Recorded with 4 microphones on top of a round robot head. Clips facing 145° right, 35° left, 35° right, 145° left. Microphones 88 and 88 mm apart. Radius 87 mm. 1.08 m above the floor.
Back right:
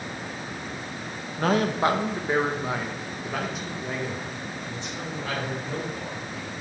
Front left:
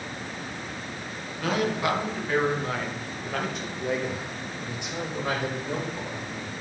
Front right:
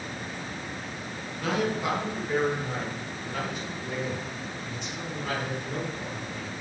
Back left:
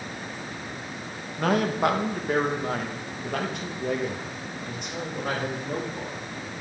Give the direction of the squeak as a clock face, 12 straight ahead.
No squeak in this recording.